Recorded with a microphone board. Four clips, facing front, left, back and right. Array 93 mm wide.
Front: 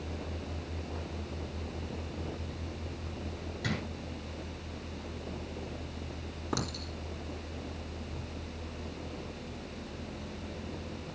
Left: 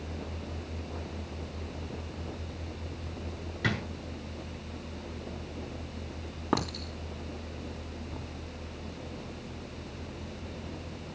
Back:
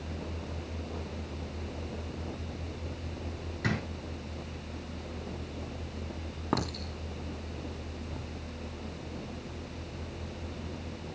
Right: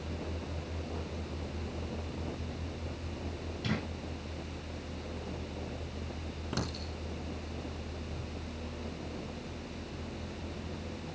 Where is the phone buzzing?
No phone buzzing in this recording.